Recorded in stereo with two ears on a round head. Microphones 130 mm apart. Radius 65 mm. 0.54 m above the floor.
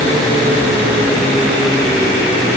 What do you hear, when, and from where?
Only background noise.